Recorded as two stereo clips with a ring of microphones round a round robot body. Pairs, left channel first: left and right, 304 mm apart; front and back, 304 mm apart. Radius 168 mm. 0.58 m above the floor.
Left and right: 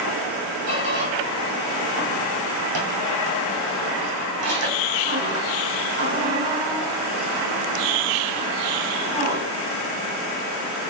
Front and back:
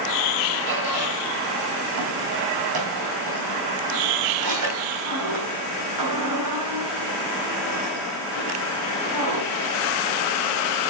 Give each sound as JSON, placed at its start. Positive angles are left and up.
{"t": 0.7, "sound": "a squeak", "azimuth_deg": -140, "distance_m": 3.0}